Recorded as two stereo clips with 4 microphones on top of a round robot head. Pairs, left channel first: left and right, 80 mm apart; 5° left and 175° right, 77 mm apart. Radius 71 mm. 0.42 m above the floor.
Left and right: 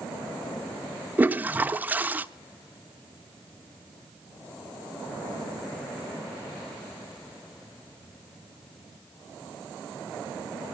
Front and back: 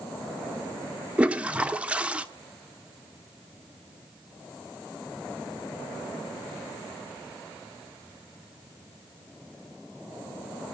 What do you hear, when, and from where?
1.2 s a toilet flushing: 125° right, 1.1 m